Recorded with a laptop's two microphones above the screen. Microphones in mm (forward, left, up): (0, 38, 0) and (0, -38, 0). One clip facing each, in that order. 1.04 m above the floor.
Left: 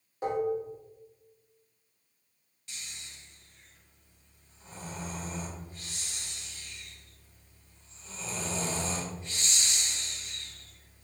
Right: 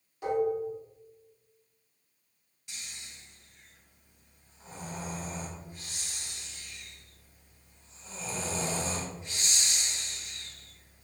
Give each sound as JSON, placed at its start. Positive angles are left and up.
{"t": 0.2, "sound": "dishes clattering", "side_deg": 35, "distance_m": 1.0}
{"t": 2.7, "sound": "snoring", "side_deg": -15, "distance_m": 1.0}